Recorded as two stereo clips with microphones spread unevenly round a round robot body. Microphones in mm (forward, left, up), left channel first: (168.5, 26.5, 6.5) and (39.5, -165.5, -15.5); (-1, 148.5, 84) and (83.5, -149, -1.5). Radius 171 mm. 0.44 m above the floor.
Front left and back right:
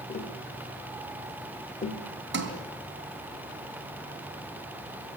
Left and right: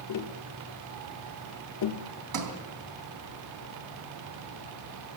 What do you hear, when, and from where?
0.1 s tapping: 115° left, 1.4 m
2.3 s a sliding door: 90° right, 3 m